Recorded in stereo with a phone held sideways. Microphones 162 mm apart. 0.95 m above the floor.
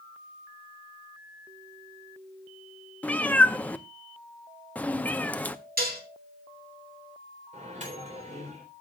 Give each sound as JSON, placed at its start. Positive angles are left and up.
{"t": 3.0, "sound": "a cat meowing", "side_deg": 10, "distance_m": 0.6}
{"t": 5.8, "sound": "dishes clattering", "side_deg": -70, "distance_m": 2.5}
{"t": 7.5, "sound": "a microwave", "side_deg": -50, "distance_m": 3.5}